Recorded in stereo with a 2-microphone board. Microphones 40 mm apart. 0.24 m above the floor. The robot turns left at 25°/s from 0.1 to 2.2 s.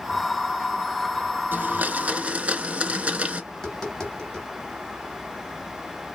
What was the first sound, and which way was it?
A blender, 50° right (ahead or behind).